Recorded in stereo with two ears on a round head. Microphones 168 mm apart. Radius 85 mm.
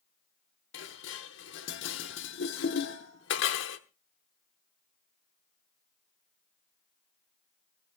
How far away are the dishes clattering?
About 1.1 m.